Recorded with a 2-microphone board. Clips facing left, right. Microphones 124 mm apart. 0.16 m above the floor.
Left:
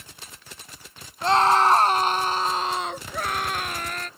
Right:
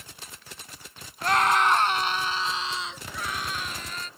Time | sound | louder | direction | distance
1.2 | a scream | left 4 dB | 25° left (ahead or behind) | ?